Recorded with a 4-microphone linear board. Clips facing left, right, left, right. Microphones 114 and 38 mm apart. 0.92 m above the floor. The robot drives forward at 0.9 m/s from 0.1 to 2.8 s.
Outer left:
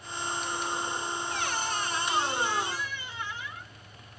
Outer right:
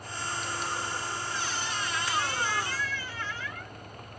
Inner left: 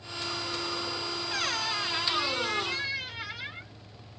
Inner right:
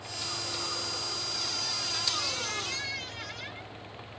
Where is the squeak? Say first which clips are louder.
Outer left 2 dB, inner left 9 dB; 70° left (ahead or behind); by 3.8 s 20° left (ahead or behind).